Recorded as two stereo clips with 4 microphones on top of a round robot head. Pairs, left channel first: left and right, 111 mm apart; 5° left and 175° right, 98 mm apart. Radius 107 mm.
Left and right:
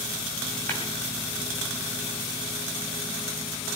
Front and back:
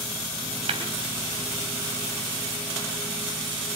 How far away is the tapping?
About 2.5 m.